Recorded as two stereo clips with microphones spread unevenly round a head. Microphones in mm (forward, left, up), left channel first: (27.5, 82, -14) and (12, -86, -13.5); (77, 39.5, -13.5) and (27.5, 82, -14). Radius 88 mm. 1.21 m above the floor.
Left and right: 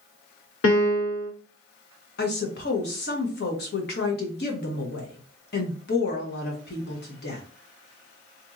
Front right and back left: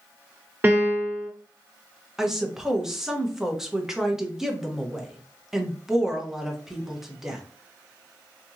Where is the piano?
80° left, 1.0 m.